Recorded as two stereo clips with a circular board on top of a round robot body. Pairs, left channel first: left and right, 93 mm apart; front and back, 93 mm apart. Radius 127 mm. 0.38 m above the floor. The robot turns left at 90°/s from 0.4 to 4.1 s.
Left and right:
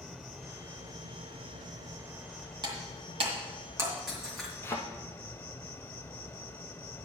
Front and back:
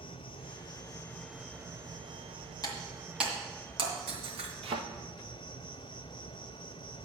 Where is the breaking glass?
45° right, 2.5 m; by 4.5 s straight behind, 2.5 m.